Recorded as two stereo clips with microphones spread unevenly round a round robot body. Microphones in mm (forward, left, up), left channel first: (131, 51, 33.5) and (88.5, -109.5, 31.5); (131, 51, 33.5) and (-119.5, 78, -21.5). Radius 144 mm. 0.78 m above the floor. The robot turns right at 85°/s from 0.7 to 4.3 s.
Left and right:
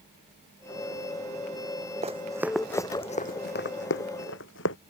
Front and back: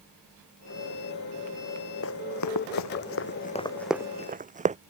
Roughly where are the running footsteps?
Ahead right.